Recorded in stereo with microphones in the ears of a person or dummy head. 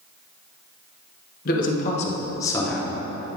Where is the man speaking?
45° left (ahead or behind), 1.3 m; by 3.0 s 10° right (ahead or behind), 0.9 m.